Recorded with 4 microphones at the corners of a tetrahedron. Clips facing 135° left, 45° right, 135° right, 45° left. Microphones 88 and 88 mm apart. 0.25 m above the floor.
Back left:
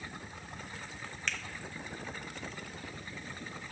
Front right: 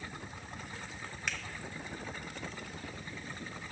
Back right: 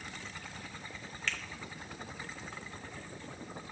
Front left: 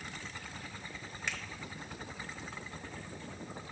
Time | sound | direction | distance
1.3 | a finger snap | 10° left | 0.9 m